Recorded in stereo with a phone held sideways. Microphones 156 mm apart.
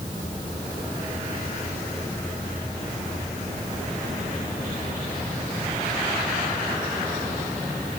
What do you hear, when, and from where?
Only background noise.